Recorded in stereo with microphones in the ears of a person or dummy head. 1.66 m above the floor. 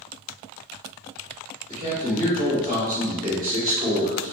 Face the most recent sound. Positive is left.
turn(degrees=-25)  # may be behind; listen again after turning